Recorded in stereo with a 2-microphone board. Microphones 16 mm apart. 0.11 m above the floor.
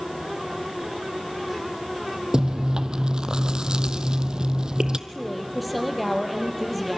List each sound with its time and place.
2.3 s chewing: 50° right (ahead or behind), 0.8 m
5.1 s a woman speaking: 5° right (ahead or behind), 3 m